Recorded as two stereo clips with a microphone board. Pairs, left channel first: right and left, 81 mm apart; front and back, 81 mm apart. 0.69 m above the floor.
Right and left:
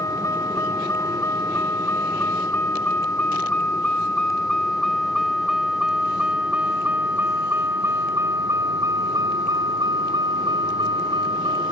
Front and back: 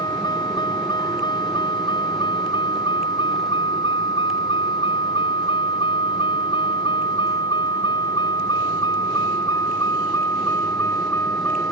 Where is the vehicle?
40° right; by 11.7 s 60° left.